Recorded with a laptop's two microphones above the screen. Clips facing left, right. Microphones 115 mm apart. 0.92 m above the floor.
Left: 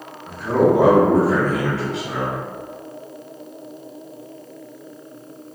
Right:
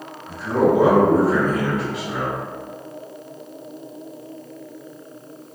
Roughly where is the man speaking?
Left.